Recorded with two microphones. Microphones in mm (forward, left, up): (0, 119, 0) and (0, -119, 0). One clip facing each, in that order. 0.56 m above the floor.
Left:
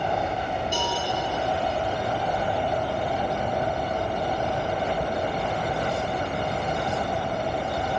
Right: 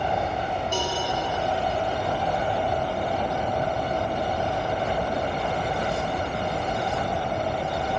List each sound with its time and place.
0.7 s a cowbell: 10° left (ahead or behind), 2.5 m